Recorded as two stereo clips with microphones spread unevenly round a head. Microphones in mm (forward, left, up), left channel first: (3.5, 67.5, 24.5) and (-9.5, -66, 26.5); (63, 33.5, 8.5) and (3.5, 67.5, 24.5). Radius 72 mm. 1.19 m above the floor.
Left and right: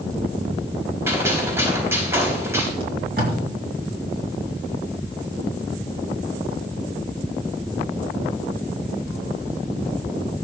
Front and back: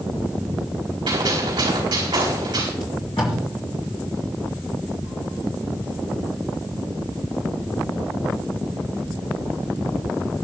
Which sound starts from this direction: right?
Tape being pulled, at 2.8 s.